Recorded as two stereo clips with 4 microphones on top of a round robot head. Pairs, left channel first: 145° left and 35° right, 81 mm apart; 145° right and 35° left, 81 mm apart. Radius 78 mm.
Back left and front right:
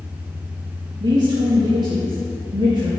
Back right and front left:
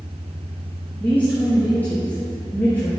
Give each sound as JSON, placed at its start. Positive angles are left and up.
{"t": 1.0, "sound": "a woman speaking", "azimuth_deg": -70, "distance_m": 1.9}